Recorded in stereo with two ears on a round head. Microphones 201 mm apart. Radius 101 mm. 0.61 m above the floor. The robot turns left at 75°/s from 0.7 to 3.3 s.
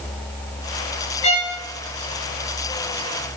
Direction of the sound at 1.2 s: 30° left (ahead or behind).